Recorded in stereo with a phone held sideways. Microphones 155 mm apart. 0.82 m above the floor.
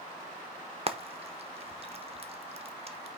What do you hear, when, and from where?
0.9 s frying: 40° right (ahead or behind), 0.7 m